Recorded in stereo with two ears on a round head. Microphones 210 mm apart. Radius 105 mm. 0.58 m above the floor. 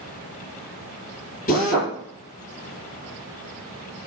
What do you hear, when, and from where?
1.5 s a drill: 35° left (ahead or behind), 5.5 m